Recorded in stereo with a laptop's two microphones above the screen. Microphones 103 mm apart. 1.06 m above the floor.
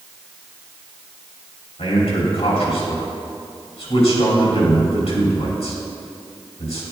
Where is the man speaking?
75° left (ahead or behind), 3 m.